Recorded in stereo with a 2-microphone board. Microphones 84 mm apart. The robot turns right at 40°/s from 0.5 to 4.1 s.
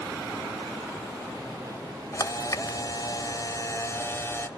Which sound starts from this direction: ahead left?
A camera shutter, at 2.1 s.